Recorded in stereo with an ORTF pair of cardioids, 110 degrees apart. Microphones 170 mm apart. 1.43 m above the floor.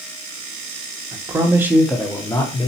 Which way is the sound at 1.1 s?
30° right.